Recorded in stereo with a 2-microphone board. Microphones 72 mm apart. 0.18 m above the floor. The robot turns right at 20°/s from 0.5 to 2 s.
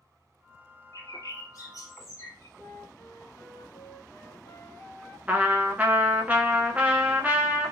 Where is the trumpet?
20° right (ahead or behind), 0.5 m.